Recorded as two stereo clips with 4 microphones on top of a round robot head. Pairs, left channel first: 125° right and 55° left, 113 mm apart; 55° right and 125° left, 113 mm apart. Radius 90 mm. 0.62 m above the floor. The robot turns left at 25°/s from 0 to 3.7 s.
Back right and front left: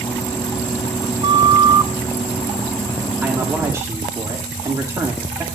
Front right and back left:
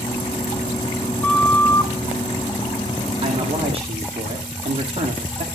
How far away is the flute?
About 0.8 m.